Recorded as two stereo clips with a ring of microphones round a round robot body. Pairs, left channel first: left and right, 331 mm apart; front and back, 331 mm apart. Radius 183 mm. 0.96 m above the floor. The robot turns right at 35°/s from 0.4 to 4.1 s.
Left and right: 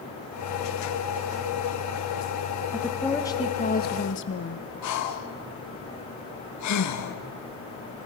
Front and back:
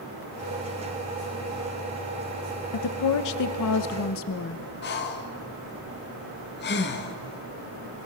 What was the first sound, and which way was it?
A woman speaking, 5° right.